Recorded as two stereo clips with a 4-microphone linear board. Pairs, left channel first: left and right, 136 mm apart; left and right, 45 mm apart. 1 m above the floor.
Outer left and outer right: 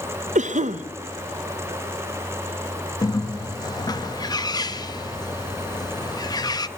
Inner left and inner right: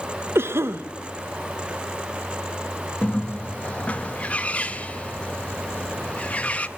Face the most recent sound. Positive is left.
turn(degrees=30)  # may be behind; listen again after turning